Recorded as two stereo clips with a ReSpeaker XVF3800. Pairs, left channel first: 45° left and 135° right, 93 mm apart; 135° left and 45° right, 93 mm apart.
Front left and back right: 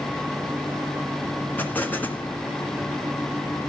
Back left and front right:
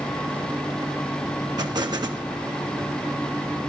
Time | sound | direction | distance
1.6 | an explosion | 20° right | 1.8 m